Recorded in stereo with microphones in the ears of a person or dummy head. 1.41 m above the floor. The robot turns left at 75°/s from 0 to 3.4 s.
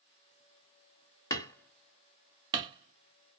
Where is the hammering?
20° left (ahead or behind), 1.0 m; by 3.4 s 30° right (ahead or behind), 1.0 m.